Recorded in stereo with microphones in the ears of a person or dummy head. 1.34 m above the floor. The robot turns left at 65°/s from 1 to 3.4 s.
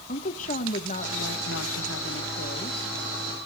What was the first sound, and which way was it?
A woman speaking, 140° left.